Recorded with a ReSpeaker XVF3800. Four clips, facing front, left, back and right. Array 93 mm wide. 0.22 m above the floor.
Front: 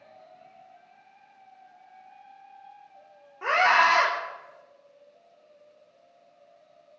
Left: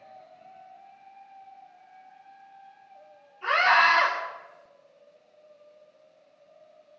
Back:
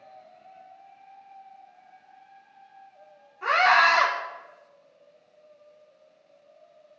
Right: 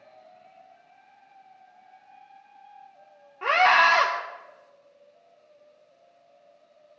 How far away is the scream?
About 4.5 m.